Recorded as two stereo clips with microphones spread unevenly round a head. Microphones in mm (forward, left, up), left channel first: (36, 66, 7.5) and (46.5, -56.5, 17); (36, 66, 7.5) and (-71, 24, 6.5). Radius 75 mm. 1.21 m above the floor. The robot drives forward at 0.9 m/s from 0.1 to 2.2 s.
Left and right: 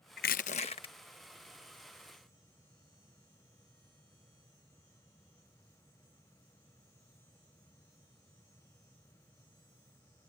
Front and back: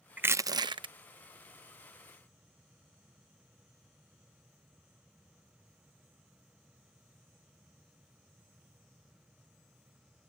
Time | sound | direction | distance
0.2 | crushing | 125° left | ?